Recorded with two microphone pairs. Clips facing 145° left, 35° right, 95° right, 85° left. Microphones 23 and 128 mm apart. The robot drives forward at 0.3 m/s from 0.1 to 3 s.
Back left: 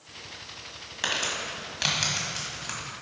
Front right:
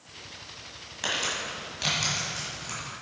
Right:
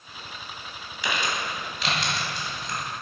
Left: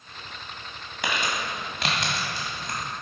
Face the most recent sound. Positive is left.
turn(degrees=90)